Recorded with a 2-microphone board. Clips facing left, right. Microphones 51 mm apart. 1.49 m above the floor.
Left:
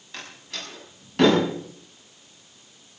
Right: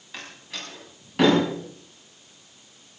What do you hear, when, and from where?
0.1 s a door slam: 5° right (ahead or behind), 7 m